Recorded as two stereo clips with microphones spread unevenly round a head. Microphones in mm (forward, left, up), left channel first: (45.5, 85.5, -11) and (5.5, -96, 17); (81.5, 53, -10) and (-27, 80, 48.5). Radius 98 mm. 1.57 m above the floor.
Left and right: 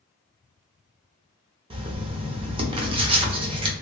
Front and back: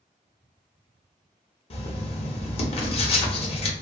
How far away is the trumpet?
I don't hear a trumpet.